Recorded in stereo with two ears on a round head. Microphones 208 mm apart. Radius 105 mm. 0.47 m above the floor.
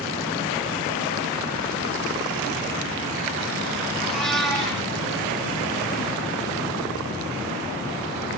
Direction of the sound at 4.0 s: Centre (ahead or behind).